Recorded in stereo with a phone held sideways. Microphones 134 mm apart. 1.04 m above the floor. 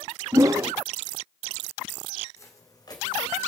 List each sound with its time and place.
0.3 s a whoosh: 25° right (ahead or behind), 0.6 m
2.4 s footsteps: 25° left (ahead or behind), 3.5 m; by 3.4 s 35° left (ahead or behind), 3 m